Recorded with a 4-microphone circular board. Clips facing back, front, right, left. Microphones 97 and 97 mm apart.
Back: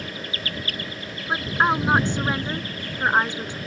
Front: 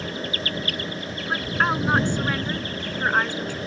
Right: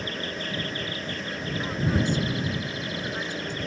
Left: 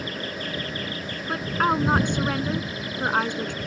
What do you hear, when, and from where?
1.3 s a woman speaking: 110° left